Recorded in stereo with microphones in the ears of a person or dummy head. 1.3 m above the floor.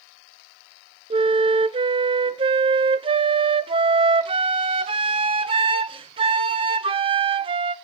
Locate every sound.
1.1 s a flute: 25° right (ahead or behind), 0.6 m